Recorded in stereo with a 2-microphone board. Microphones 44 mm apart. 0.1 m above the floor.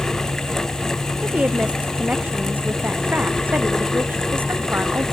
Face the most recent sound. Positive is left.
turn(degrees=-55)  # may be behind; listen again after turning